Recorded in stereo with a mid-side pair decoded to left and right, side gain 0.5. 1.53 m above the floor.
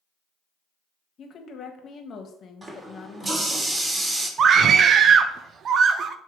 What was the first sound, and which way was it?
A woman speaking, 50° left.